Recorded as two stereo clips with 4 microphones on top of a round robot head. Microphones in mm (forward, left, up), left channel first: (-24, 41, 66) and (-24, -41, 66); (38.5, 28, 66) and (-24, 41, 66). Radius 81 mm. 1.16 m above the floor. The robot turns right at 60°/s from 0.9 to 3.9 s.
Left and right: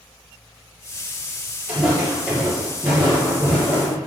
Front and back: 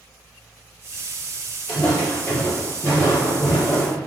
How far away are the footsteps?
About 1.4 m.